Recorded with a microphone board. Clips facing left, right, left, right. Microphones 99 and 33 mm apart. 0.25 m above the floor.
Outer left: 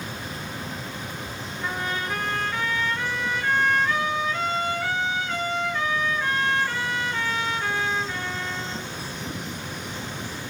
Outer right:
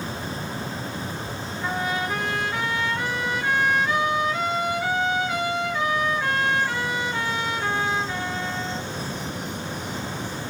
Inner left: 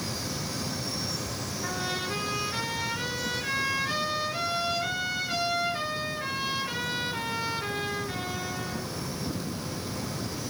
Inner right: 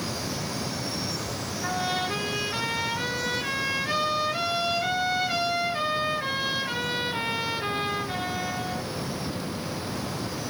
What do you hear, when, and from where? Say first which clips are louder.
1.6 s a trumpet: outer right 3 dB, inner right 5 dB; 10° right (ahead or behind), 4.5 m